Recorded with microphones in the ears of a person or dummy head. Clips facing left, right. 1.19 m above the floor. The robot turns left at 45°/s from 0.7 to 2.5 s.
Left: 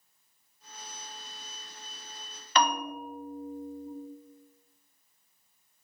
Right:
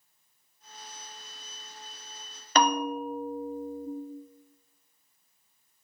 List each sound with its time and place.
2.5 s a bell: 35° right (ahead or behind), 0.6 m